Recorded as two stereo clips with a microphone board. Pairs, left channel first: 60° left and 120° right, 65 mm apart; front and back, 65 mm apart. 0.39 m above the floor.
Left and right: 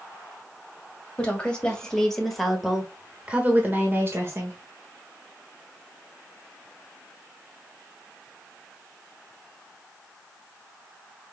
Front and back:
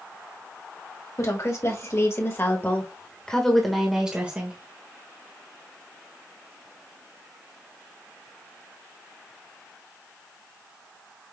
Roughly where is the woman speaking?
Ahead.